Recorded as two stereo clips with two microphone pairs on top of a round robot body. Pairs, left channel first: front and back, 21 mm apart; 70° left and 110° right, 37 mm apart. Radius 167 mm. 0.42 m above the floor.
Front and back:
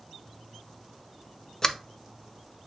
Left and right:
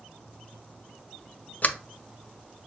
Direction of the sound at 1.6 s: 35° left.